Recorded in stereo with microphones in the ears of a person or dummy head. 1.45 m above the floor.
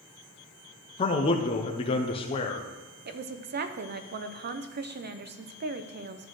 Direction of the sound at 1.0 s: 30° left (ahead or behind).